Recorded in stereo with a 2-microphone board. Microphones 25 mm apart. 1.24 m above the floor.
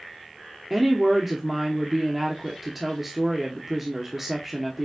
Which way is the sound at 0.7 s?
10° right (ahead or behind).